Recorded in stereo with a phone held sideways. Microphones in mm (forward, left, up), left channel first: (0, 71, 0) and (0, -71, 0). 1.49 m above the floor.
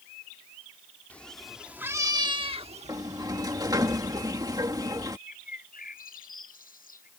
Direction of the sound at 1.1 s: 10° left (ahead or behind).